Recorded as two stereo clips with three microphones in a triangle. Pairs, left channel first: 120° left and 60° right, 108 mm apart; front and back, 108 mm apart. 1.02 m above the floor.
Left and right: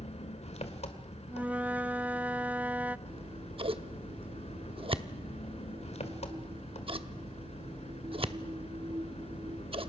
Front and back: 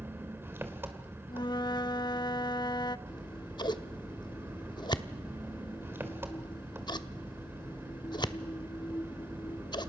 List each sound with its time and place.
0.0 s an engine running: 110° left, 2 m
1.3 s a flute: 10° left, 0.5 m
3.1 s scissors: 40° right, 0.8 m